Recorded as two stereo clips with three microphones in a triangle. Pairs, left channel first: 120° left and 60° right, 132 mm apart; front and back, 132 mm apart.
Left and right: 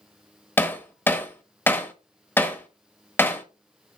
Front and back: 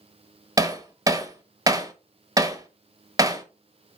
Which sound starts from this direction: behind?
Hammering, at 0.6 s.